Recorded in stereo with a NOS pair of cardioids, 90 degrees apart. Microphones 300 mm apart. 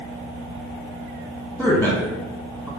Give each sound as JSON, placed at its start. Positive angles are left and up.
{"t": 1.6, "sound": "a man speaking", "azimuth_deg": 5, "distance_m": 1.0}